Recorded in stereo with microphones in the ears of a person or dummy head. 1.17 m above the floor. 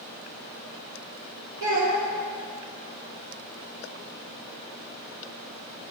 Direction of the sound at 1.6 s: 65° right (ahead or behind).